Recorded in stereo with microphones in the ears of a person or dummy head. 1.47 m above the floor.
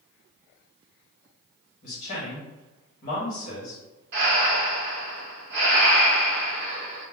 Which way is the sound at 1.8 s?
45° left (ahead or behind).